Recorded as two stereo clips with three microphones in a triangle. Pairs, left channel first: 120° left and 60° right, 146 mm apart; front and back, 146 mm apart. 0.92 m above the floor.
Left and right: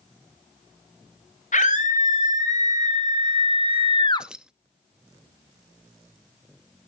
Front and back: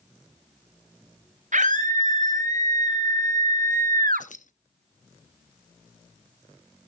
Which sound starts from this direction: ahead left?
Keys jangling, at 4.2 s.